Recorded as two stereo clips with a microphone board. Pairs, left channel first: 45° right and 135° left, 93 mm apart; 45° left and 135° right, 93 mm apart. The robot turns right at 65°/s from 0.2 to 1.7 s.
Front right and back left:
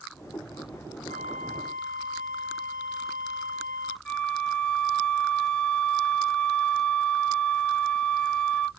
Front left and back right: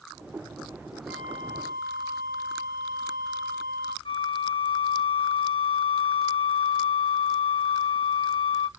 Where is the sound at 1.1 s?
55° right, 1.6 m; by 4.0 s 10° right, 1.6 m.